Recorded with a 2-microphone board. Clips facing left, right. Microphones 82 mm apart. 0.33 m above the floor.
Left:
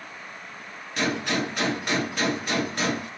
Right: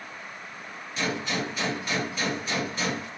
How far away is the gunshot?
About 1.5 m.